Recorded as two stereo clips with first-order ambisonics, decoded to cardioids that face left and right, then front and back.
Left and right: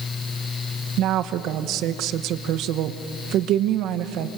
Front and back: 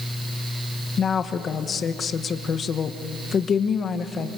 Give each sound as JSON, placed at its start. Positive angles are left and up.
{"t": 1.0, "sound": "a woman speaking", "azimuth_deg": -60, "distance_m": 1.1}